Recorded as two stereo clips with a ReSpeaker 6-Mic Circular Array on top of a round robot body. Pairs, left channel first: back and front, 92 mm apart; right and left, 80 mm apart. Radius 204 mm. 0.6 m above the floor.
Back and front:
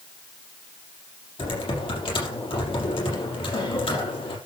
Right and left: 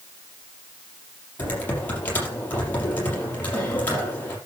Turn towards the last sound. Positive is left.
turn(degrees=-160)